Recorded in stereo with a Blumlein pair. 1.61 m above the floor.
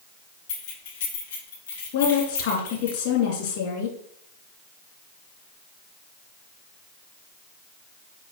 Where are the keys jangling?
60° left, 3.5 m; by 2.9 s 80° left, 4.5 m.